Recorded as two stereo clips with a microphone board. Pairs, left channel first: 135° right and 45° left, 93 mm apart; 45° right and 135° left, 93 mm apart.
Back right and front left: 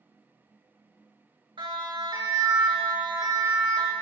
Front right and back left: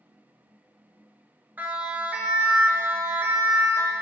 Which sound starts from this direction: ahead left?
A siren, at 1.6 s.